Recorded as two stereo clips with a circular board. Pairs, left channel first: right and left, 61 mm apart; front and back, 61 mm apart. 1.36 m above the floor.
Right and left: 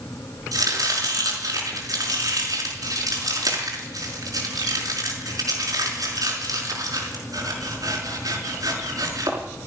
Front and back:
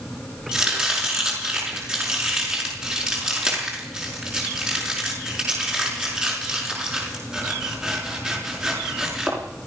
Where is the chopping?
105° left, 5.5 m.